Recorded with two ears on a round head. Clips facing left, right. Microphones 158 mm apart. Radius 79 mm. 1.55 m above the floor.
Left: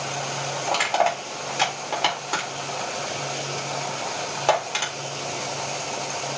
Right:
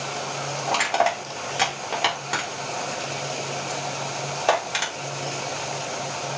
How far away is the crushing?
About 3.5 m.